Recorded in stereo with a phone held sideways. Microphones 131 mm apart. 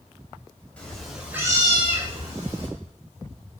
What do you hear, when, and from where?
0.8 s a cat meowing: 10° left (ahead or behind), 1.2 m; by 2.7 s 45° right (ahead or behind), 1.6 m